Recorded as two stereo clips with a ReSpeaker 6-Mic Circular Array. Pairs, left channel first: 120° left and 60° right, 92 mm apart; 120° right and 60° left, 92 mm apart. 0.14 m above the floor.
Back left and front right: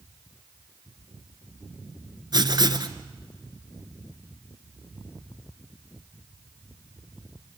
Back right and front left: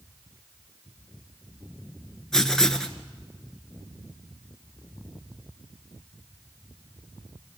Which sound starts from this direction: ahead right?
Writing, at 2.3 s.